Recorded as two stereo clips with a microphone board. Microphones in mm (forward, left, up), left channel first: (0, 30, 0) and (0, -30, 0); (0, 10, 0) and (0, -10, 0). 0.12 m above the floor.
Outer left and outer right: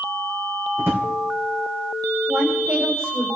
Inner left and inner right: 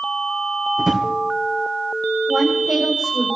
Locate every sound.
0.8 s a drawer: 35° right (ahead or behind), 2.5 m
2.3 s a woman speaking: 40° right (ahead or behind), 8.5 m